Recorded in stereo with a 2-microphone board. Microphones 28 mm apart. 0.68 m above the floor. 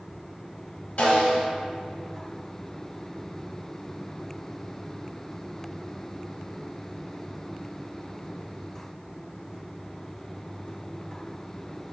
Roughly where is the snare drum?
Left.